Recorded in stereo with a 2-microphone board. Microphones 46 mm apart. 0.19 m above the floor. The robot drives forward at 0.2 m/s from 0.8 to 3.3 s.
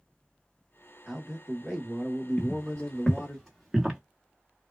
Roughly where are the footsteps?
Left.